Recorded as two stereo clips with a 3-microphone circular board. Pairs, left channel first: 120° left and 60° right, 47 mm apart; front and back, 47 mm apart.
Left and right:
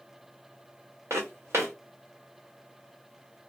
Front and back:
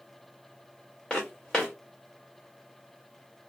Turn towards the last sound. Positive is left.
turn(degrees=-75)